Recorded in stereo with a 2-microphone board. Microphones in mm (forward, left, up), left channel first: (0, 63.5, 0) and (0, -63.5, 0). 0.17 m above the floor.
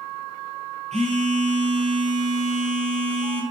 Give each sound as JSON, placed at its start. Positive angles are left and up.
{"t": 0.9, "sound": "a phone buzzing", "side_deg": -60, "distance_m": 2.5}